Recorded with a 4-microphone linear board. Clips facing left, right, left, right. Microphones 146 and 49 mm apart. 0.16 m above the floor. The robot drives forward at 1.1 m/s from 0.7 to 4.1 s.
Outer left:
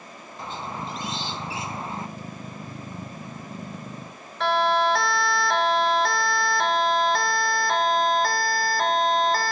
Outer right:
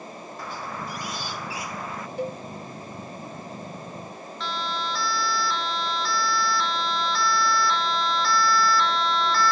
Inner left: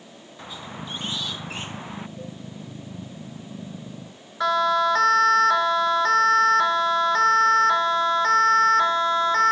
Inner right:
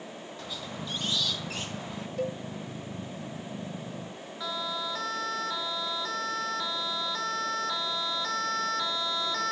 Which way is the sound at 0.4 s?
20° left (ahead or behind).